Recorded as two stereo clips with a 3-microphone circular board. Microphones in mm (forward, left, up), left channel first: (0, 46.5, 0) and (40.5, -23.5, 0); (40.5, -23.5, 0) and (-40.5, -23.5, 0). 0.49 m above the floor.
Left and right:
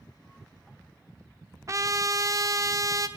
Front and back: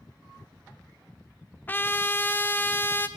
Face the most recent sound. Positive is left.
turn(degrees=-55)